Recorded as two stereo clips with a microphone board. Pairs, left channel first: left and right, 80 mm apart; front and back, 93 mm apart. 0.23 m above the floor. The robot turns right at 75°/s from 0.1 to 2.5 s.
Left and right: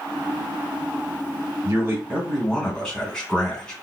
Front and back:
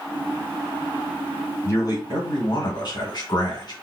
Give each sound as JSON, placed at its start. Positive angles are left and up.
{"t": 1.6, "sound": "a man speaking", "azimuth_deg": -50, "distance_m": 2.5}